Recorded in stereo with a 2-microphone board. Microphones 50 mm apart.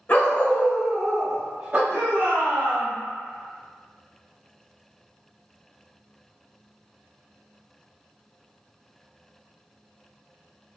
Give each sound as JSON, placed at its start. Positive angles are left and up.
{"t": 0.1, "sound": "a dog barking", "side_deg": 35, "distance_m": 0.7}
{"t": 1.9, "sound": "a shout", "side_deg": -30, "distance_m": 1.7}